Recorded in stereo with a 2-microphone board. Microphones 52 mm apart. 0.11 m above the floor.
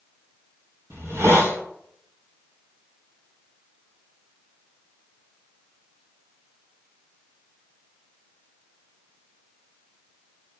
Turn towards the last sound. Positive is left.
turn(degrees=-60)  # may be behind; listen again after turning